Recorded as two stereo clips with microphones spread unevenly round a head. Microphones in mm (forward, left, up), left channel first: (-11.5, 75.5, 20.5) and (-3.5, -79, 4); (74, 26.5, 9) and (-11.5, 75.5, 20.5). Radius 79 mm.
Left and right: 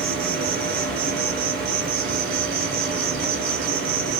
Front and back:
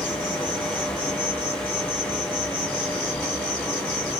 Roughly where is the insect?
Behind right.